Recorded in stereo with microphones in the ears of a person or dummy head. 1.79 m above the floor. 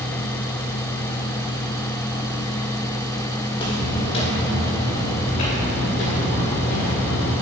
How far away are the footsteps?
About 3.5 m.